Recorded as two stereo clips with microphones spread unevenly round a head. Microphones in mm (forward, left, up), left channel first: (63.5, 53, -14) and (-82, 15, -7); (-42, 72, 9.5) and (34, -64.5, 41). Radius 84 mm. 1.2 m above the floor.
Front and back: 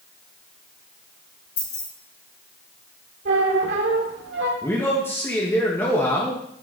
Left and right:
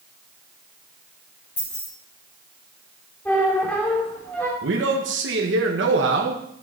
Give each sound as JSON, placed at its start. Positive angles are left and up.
{"t": 1.6, "sound": "keys jangling", "azimuth_deg": 40, "distance_m": 5.0}
{"t": 3.2, "sound": "a squeak", "azimuth_deg": -155, "distance_m": 2.0}
{"t": 4.6, "sound": "a man speaking", "azimuth_deg": -65, "distance_m": 1.5}